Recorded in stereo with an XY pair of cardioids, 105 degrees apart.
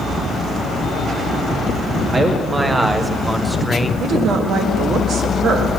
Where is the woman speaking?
60° right, 1.8 m.